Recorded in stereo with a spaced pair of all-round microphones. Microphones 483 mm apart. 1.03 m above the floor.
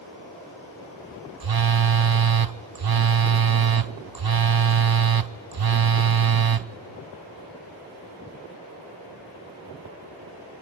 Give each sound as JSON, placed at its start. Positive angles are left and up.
{"t": 1.4, "sound": "a phone buzzing", "side_deg": -50, "distance_m": 0.6}